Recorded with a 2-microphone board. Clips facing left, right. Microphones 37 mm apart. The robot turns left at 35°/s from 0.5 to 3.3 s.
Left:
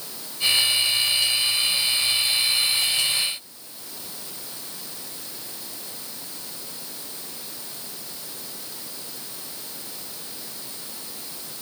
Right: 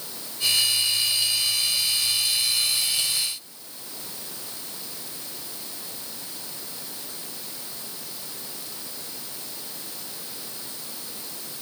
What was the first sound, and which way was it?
Only background noise.